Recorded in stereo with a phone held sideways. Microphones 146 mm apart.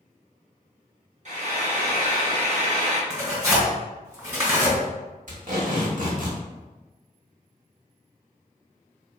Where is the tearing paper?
20° right (ahead or behind), 1.9 m.